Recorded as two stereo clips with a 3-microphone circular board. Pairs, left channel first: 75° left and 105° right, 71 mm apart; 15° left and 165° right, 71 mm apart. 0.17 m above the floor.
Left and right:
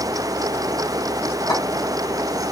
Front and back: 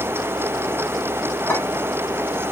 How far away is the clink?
About 1.6 m.